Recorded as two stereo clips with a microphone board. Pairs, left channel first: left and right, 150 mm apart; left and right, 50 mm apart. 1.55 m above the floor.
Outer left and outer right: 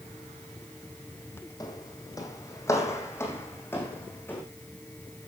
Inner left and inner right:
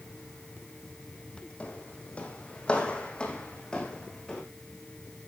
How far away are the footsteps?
About 3 m.